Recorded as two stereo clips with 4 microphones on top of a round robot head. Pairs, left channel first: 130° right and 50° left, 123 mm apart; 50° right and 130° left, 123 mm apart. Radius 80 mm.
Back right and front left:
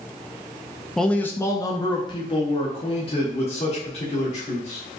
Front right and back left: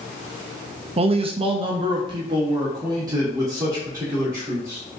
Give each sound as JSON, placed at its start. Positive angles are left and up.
{"t": 1.0, "sound": "a man speaking", "azimuth_deg": 145, "distance_m": 0.6}